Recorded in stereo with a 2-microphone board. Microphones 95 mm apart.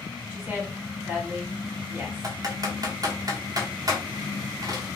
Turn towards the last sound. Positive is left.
turn(degrees=-45)  # may be behind; listen again after turning